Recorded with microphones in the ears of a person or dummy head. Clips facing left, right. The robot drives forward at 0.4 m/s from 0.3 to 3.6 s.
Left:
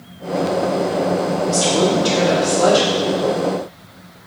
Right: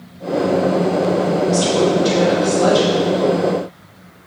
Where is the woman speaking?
30° left (ahead or behind), 3 m; by 2.9 s 25° left (ahead or behind), 3.5 m.